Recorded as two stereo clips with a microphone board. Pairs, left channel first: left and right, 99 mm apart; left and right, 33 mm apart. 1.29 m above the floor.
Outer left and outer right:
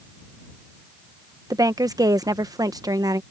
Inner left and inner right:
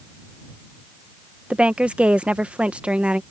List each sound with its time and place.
1.5 s a woman speaking: 40° right (ahead or behind)